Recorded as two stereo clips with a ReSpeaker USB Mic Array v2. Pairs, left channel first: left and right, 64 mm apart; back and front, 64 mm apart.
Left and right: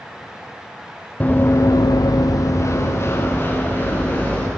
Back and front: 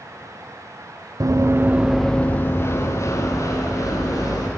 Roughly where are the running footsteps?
Ahead left.